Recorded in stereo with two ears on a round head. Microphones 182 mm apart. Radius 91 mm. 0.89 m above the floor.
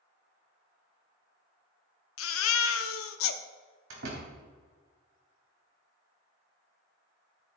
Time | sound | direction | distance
2.2 | a baby crying | 80° left | 0.7 m
3.9 | a door slam | 75° right (ahead or behind) | 4 m